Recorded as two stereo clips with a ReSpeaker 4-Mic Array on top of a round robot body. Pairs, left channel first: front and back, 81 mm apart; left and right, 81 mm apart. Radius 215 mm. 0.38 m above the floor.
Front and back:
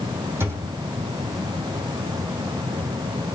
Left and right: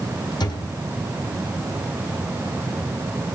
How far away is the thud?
About 3.5 m.